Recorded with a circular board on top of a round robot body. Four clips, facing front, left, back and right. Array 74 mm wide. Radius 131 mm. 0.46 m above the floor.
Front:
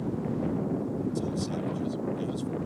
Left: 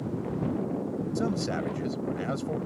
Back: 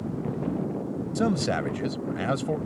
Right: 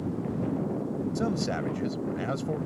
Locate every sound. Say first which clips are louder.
1.1 s a man speaking: left 1 dB, back 6 dB; straight behind